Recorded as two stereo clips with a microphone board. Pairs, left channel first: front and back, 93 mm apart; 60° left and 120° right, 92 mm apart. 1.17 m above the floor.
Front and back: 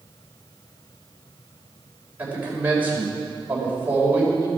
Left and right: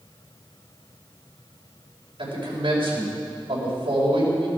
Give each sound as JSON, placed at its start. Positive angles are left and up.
{"t": 2.2, "sound": "a man speaking", "azimuth_deg": -110, "distance_m": 5.0}